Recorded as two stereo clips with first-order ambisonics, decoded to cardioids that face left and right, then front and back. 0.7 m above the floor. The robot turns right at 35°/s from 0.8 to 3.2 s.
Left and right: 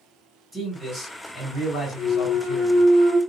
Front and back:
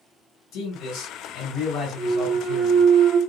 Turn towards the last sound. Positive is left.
turn(degrees=-150)